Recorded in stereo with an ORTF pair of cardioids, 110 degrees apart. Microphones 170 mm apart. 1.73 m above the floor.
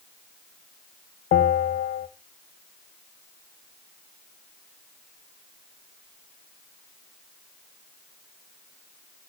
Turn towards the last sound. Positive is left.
turn(degrees=65)